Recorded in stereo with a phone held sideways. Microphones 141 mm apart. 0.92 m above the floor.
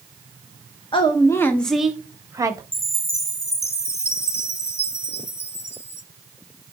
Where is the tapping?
I don't hear tapping.